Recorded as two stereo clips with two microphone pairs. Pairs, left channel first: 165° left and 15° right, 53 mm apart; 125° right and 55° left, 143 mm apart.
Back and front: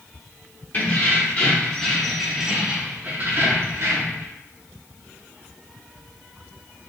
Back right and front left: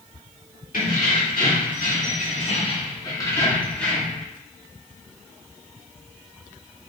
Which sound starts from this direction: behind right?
Keys jangling, at 0.7 s.